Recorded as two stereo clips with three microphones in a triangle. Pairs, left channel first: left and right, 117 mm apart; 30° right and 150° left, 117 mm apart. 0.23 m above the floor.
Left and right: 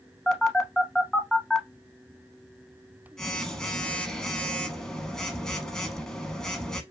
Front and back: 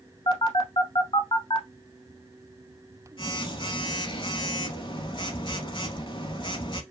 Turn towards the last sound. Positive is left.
turn(degrees=5)